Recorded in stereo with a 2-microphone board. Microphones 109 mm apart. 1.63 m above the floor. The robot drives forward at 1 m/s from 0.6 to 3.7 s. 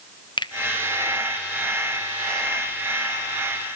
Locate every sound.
0.4 s a finger snap: 45° left (ahead or behind), 0.6 m